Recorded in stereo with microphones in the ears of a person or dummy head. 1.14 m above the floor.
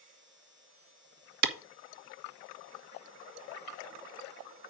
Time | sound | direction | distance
1.4 | a clap | 55° right (ahead or behind) | 1.2 m